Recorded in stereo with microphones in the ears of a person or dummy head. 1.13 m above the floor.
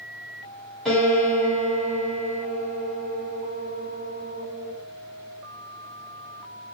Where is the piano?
Centre (ahead or behind), 2 m.